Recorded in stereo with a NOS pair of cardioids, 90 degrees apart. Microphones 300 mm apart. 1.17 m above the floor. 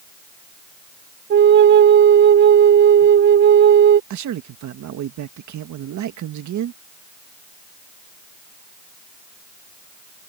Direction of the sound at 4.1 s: 70° right.